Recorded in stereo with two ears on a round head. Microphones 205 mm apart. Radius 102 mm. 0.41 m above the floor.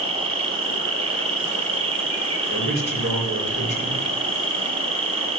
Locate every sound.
0.0 s an insect: 25° right (ahead or behind), 1.7 m
2.5 s a man speaking: 45° right (ahead or behind), 5 m